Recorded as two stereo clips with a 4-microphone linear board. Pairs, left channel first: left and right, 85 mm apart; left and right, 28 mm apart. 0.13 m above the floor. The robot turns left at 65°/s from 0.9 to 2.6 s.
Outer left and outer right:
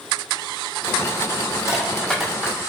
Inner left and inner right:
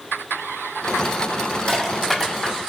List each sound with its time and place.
1.7 s crushing: 40° left (ahead or behind), 1.0 m; by 2.5 s 15° right (ahead or behind), 1.0 m